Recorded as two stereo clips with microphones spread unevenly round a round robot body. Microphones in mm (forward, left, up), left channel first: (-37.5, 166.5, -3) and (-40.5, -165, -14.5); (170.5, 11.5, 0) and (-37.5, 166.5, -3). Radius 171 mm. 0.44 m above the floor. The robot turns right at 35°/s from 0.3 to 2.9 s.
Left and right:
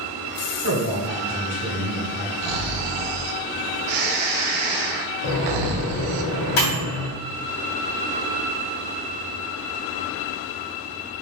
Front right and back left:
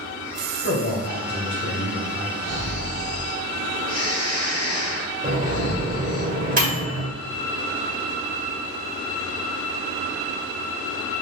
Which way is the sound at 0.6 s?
70° right.